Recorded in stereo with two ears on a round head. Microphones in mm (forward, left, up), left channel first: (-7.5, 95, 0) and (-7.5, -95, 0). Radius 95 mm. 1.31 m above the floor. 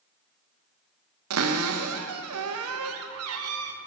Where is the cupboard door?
75° right (ahead or behind), 0.7 m.